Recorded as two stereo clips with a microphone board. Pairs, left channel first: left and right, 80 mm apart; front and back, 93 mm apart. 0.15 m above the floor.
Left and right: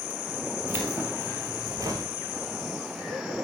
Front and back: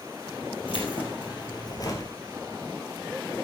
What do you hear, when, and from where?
0.7 s keys jangling: 25° right, 3 m; by 2.1 s 50° right, 2.5 m